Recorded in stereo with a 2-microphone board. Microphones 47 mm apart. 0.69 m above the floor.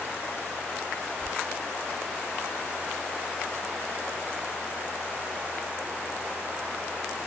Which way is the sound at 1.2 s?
25° left (ahead or behind).